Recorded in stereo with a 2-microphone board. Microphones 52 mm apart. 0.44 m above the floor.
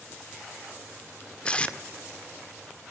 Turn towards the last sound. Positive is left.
turn(degrees=20)  # may be behind; listen again after turning